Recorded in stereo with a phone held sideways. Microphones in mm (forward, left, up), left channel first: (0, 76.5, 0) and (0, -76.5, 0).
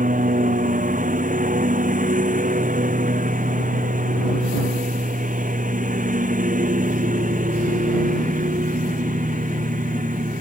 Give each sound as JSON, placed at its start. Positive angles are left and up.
{"t": 0.0, "sound": "a lawn mower", "side_deg": -60}